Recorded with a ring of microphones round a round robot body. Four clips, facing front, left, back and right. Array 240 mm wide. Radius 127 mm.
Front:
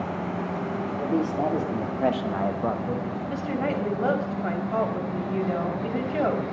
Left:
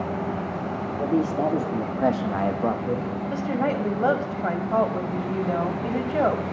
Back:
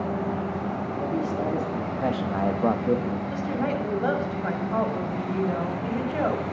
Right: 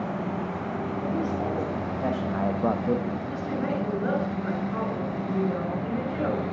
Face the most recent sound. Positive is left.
turn(degrees=70)